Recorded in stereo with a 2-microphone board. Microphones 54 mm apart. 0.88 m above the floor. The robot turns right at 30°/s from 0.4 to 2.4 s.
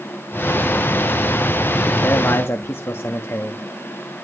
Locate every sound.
2.0 s a man speaking: 60° left (ahead or behind), 1.4 m; by 3.6 s 55° left (ahead or behind), 1.4 m